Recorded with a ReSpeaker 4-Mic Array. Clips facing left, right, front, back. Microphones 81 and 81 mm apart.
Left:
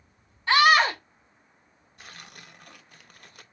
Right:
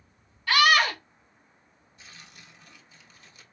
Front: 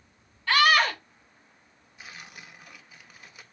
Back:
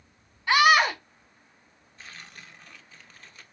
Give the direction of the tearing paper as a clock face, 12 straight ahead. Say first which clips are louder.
Left 4 dB, front 1 dB; 9 o'clock.